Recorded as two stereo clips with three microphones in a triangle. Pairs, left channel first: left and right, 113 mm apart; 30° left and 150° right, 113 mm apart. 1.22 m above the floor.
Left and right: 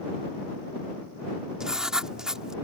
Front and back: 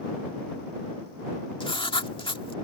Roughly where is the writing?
Ahead.